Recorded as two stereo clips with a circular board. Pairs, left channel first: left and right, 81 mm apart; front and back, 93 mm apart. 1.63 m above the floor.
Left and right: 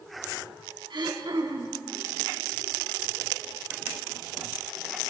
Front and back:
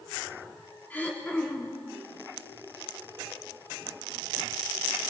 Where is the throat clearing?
70° right, 3 m.